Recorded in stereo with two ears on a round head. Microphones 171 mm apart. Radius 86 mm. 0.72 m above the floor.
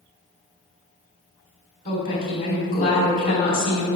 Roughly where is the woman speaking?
Left.